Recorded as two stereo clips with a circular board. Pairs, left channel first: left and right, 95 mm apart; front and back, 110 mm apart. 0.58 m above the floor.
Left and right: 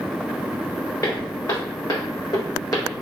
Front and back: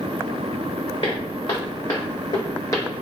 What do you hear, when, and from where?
1.0 s footsteps: 40° left, 1.8 m; by 2.9 s 50° left, 0.9 m